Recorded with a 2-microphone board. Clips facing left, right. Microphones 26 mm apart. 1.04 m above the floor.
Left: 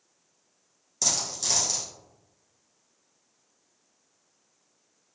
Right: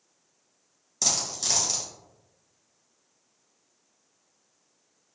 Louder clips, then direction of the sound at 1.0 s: Right 1 dB; 5° right (ahead or behind).